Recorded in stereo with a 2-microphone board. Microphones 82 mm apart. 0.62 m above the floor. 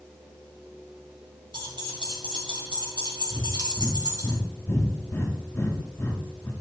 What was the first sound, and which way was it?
Keys jangling, 80° right.